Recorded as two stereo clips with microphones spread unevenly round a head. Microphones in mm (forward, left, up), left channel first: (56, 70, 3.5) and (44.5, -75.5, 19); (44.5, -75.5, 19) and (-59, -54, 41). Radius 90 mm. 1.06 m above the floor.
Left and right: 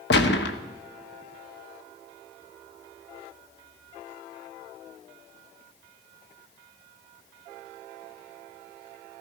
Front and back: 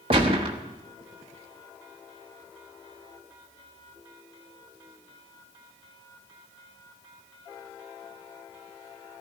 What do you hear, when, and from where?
0.1 s a gunshot: 110° left, 1.0 m